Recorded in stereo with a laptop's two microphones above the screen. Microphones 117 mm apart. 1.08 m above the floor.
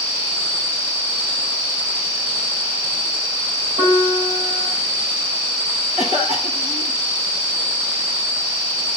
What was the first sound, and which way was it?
A piano, 65° right (ahead or behind).